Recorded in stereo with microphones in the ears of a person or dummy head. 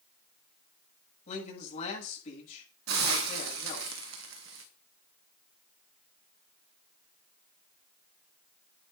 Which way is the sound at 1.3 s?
40° left (ahead or behind).